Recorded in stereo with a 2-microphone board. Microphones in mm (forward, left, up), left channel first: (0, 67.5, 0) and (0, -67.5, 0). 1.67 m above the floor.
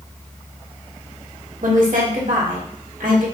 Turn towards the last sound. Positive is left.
turn(degrees=-75)  # may be behind; listen again after turning